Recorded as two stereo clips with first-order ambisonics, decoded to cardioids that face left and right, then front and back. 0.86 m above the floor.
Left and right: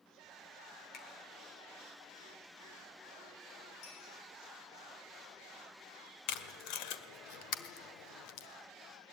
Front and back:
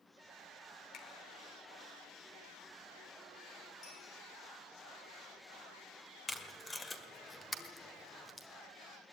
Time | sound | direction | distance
0.9 | a finger snap | 40° left | 3 m
3.8 | a clink | 55° left | 9 m
6.3 | tape being pulled | 80° left | 1.5 m